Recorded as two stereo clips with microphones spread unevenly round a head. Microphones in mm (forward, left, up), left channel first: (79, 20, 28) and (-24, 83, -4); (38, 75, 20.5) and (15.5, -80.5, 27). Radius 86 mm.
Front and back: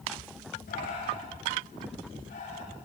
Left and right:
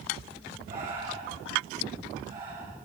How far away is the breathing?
About 9.5 m.